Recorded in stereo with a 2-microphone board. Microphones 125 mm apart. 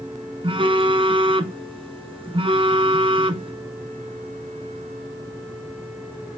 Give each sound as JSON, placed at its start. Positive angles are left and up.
{"t": 0.4, "sound": "a phone buzzing", "side_deg": -50, "distance_m": 0.7}